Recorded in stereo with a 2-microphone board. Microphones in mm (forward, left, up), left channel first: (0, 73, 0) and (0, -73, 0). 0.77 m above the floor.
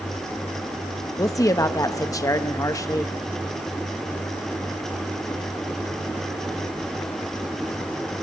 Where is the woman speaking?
20° left (ahead or behind), 0.6 m.